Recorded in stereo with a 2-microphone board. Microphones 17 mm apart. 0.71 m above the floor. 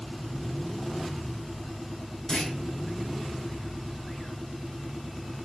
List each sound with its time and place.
2.3 s a clunk: 50° left (ahead or behind), 1.5 m